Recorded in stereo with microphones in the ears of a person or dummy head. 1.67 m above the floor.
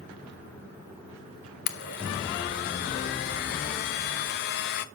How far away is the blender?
About 0.7 m.